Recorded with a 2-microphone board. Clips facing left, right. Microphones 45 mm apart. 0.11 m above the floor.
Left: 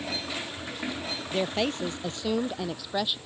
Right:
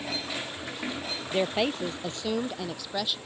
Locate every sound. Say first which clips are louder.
1.3 s a woman speaking: right 1 dB; 10° right (ahead or behind); by 3.2 s 15° left (ahead or behind)